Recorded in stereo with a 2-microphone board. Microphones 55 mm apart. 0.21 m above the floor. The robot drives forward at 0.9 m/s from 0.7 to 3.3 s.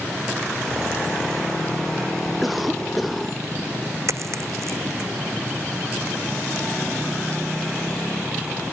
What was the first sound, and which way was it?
A cough, centre (ahead or behind).